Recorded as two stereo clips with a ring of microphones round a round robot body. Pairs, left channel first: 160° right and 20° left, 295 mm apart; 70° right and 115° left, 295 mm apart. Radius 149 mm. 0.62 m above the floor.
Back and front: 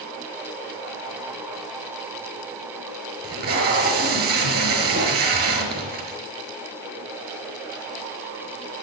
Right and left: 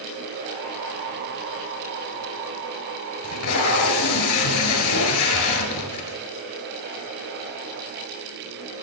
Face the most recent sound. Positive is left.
turn(degrees=-35)